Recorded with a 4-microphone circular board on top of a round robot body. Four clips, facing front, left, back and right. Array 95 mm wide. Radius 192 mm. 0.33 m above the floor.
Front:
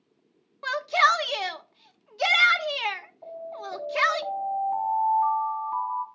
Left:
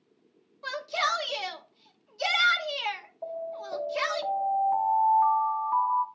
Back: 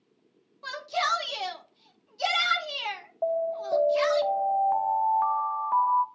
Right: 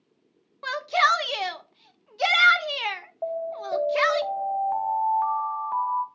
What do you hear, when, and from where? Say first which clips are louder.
0.6 s a shout: right 7 dB, front 7 dB; 40° right, 1.3 m
3.2 s an alarm: right 6 dB, back 11 dB; 150° right, 2 m